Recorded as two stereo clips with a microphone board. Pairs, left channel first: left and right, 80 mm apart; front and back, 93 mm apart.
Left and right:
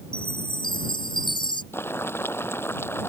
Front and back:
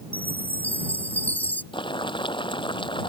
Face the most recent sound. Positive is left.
turn(degrees=30)